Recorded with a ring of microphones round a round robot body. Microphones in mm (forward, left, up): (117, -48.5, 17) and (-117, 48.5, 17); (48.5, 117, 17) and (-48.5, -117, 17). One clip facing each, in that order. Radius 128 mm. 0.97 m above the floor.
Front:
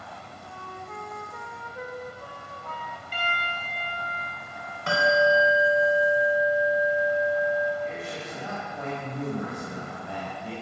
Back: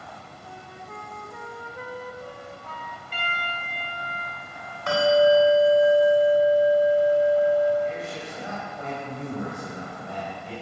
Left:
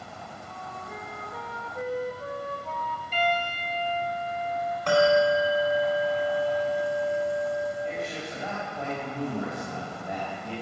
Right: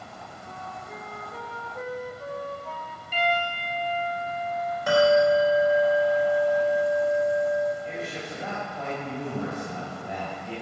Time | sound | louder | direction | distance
0.4 | a flute | front 1 dB, right 3 dB | 155° left | 2 m
3.1 | a piano | front 1 dB, right 1 dB | 30° right | 5 m
4.9 | a bell | back 5 dB, right 2 dB | 30° right | 4.5 m
7.8 | a man speaking | back 3 dB, left 1 dB | 10° right | 6 m